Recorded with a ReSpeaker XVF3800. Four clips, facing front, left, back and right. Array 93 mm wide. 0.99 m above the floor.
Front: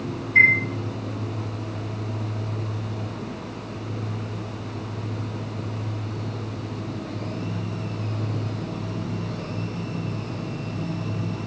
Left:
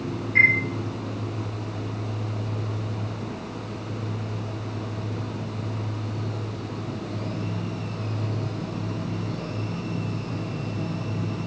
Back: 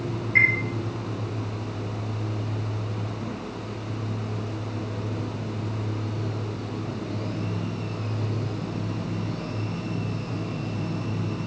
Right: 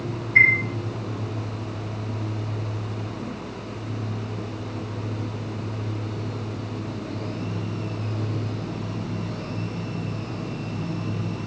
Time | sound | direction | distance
0.3 | a chime | 175° left | 1.2 m